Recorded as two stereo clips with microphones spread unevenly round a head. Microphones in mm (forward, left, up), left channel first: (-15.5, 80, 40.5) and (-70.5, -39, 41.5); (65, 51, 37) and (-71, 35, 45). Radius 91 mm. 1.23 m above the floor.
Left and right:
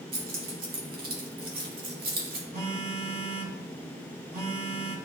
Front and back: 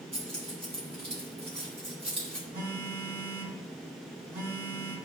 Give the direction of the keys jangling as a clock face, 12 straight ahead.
4 o'clock.